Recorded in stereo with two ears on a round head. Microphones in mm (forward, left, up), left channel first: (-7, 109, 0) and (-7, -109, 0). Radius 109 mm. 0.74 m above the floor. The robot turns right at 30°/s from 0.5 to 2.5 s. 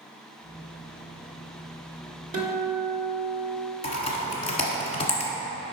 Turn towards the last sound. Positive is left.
turn(degrees=25)  # may be behind; listen again after turning